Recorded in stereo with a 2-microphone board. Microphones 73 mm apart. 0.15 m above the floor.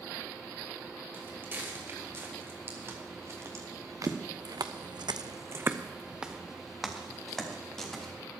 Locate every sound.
1.1 s footsteps: 30° right (ahead or behind), 4.5 m; by 8.1 s 10° left (ahead or behind), 3.5 m